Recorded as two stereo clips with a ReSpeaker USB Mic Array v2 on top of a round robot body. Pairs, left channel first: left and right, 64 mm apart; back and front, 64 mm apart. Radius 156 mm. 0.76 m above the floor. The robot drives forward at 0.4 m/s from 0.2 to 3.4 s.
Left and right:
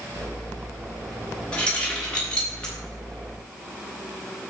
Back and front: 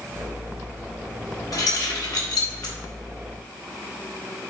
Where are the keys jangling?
165° left, 1.5 m; by 2.8 s 170° left, 2.0 m.